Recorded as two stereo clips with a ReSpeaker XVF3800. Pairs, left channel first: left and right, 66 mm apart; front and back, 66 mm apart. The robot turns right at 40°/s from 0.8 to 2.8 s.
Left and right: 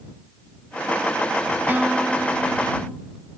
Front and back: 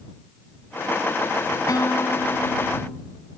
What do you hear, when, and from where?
1.7 s a guitar: 30° right; by 3.0 s 15° left